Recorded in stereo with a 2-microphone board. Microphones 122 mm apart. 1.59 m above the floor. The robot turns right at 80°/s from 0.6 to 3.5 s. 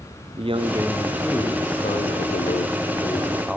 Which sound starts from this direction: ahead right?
A man speaking, at 0.4 s.